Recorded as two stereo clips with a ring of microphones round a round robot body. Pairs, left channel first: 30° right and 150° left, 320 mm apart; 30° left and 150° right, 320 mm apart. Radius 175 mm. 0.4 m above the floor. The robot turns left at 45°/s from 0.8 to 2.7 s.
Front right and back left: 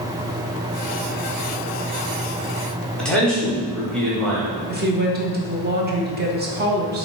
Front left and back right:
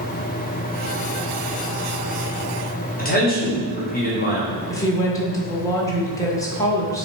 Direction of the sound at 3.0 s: 55° left.